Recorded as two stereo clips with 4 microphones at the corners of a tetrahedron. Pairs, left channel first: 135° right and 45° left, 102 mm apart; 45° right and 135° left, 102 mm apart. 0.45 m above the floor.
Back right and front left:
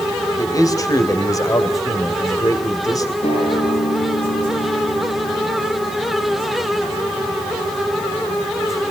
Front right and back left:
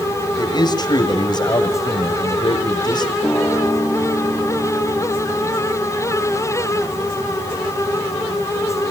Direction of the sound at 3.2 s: 135° right.